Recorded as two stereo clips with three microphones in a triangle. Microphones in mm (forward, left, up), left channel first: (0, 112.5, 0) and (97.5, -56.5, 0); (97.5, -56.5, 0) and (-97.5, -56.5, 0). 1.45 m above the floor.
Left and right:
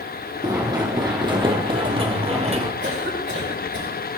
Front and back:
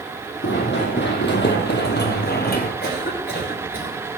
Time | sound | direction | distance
0.4 | running footsteps | 10° left | 3.5 m
2.8 | a cough | 35° right | 7 m